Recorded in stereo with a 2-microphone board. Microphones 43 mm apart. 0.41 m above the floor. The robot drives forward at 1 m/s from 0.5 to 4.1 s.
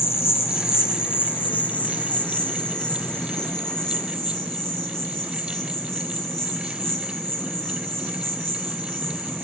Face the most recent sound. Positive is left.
turn(degrees=15)  # may be behind; listen again after turning